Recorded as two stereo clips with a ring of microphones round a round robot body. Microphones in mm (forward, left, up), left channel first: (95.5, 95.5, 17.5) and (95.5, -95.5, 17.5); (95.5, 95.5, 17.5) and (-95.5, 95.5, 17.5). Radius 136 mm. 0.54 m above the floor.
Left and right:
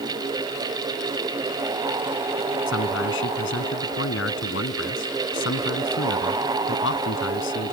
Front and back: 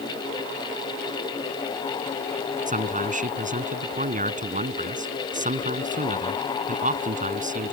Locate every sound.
2.7 s a man speaking: 130° left